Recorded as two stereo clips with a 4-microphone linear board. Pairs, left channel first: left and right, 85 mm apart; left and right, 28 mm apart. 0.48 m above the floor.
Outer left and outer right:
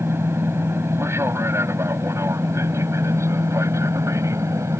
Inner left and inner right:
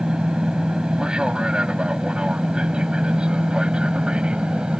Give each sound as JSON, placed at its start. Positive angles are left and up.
{"t": 0.0, "sound": "an aircraft", "side_deg": -30}